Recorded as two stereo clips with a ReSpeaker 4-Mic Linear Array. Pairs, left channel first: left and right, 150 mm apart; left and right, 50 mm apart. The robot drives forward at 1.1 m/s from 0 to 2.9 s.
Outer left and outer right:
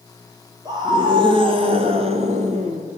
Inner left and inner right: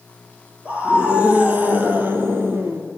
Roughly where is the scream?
Right.